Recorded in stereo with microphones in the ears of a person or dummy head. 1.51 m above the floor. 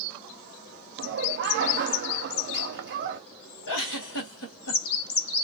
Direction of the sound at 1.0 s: 55° right (ahead or behind).